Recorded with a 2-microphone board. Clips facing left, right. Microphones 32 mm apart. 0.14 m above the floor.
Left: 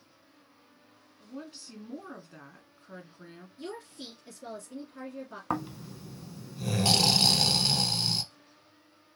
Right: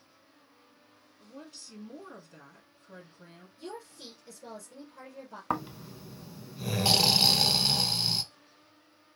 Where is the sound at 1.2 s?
25° left (ahead or behind), 1.5 m.